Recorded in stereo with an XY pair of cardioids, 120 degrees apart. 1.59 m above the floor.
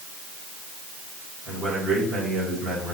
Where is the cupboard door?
No cupboard door in this recording.